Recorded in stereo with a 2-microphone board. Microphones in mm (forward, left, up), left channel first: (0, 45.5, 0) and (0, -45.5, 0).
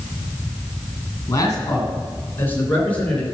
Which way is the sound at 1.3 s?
35° left (ahead or behind).